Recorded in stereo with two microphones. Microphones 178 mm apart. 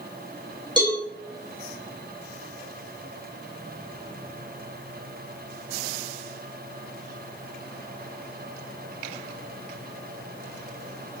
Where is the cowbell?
25° right (ahead or behind), 1.7 m.